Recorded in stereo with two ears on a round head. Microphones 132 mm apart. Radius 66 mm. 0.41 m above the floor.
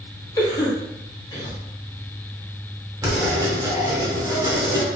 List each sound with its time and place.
0.4 s a cough: 20° left (ahead or behind), 1.0 m
3.0 s writing: 25° right (ahead or behind), 0.8 m